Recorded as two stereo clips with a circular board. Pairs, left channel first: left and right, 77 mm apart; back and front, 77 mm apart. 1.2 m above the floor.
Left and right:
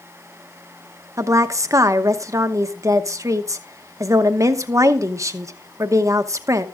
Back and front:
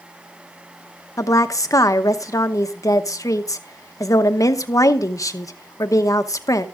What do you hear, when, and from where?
1.2 s a woman speaking: 135° right, 0.9 m